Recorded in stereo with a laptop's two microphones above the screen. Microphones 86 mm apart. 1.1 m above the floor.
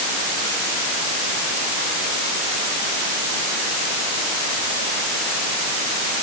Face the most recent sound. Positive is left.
No sound to turn to.